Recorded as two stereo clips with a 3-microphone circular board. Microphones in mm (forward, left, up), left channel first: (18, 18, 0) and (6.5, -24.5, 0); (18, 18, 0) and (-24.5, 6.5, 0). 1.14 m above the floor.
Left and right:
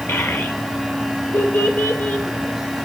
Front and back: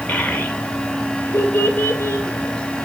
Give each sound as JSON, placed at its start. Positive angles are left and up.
{"t": 0.1, "sound": "a child speaking", "azimuth_deg": 60, "distance_m": 2.0}